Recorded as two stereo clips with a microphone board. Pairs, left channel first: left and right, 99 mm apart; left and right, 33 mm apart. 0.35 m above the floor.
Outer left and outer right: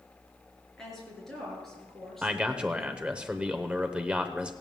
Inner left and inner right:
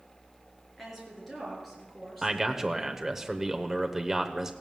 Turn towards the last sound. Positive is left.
turn(degrees=-10)  # may be behind; listen again after turning